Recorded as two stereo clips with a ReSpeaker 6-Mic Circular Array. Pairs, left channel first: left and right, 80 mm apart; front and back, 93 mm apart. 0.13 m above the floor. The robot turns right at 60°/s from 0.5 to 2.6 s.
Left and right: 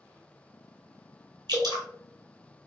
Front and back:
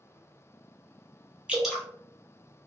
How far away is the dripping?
About 1.2 m.